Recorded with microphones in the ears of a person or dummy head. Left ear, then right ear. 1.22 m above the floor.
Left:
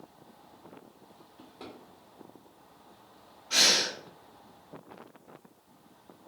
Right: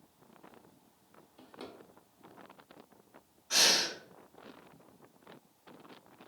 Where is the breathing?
50° right (ahead or behind), 1.8 m.